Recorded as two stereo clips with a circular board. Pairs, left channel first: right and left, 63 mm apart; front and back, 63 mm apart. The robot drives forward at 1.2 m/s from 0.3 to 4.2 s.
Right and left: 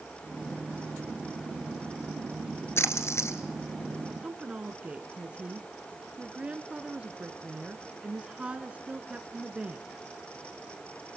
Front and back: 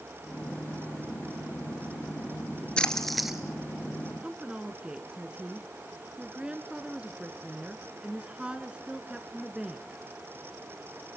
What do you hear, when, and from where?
2.8 s a splash: 70° right, 1.9 m; by 3.4 s 100° right, 1.8 m
4.2 s a woman speaking: 130° left, 1.5 m